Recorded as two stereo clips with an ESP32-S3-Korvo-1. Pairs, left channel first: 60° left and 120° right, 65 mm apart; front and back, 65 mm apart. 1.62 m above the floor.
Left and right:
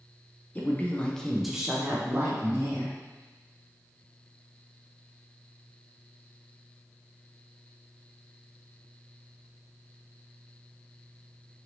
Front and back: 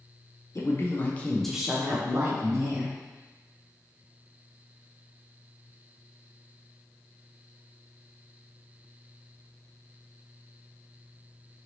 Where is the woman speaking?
5° left, 0.7 m; by 3.0 s 165° right, 1.0 m.